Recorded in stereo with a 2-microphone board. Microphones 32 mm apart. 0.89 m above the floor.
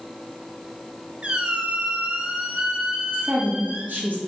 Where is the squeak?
35° right (ahead or behind), 0.6 m.